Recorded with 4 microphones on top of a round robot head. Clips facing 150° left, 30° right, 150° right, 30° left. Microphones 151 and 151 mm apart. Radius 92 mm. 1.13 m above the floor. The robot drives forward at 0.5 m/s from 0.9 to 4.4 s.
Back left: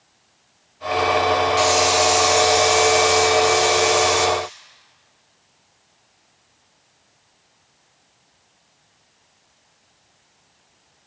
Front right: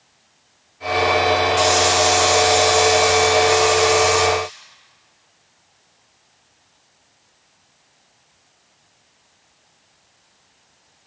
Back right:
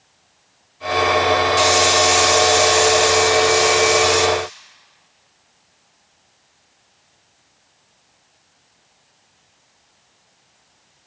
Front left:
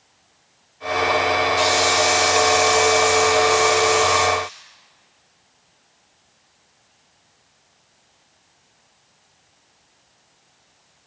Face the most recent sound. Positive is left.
turn(degrees=-160)